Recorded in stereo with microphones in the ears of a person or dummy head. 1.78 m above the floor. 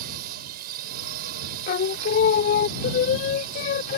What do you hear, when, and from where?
0.0 s a drone: 55° right (ahead or behind)
1.7 s singing: 45° left (ahead or behind)